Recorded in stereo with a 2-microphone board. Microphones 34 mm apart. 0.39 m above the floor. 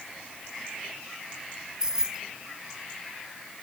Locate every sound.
1.8 s keys jangling: 20° right (ahead or behind)